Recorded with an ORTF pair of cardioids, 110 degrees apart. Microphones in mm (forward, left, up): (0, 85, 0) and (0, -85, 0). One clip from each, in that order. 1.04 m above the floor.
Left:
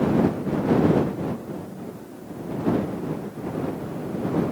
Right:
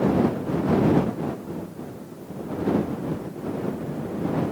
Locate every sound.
Only background noise.